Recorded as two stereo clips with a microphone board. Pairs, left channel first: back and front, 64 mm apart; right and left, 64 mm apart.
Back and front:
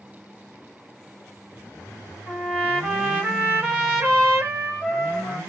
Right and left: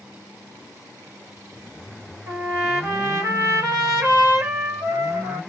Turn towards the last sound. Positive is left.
turn(degrees=60)